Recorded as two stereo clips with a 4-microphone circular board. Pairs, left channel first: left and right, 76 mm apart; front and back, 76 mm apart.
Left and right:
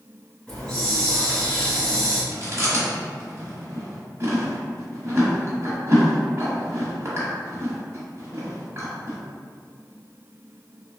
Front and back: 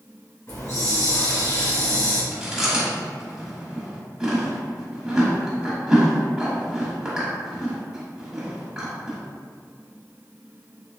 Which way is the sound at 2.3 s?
105° right.